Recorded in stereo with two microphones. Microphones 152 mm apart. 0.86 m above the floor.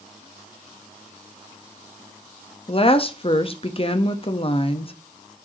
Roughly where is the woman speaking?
Left.